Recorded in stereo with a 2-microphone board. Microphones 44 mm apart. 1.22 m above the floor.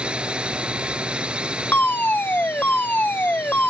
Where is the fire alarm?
50° left (ahead or behind).